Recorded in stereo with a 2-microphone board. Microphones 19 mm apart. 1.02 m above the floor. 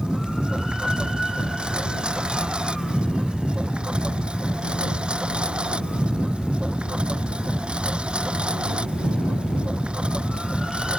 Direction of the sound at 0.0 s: 60° right (ahead or behind).